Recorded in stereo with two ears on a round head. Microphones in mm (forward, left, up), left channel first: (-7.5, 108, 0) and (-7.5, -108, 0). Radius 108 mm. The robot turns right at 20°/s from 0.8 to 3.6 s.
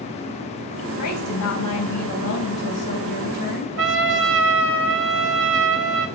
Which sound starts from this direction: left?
A woman speaking, at 1.0 s.